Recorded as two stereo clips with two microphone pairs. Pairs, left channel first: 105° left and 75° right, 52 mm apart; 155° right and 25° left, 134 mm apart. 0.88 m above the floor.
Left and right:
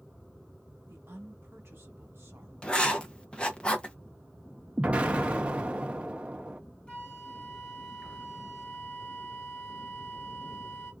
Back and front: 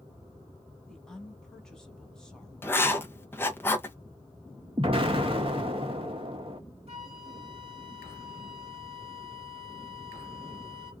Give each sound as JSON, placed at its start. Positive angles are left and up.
{"t": 0.9, "sound": "a woman speaking", "azimuth_deg": -70, "distance_m": 1.2}
{"t": 2.6, "sound": "writing", "azimuth_deg": 145, "distance_m": 0.7}
{"t": 4.8, "sound": "an explosion", "azimuth_deg": -15, "distance_m": 0.7}
{"t": 6.9, "sound": "a flute", "azimuth_deg": 40, "distance_m": 1.4}